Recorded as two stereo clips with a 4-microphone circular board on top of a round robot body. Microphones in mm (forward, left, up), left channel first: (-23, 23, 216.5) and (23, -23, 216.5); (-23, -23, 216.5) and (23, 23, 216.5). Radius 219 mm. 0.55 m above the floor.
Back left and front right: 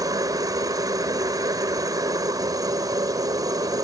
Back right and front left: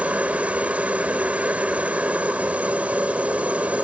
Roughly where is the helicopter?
Ahead right.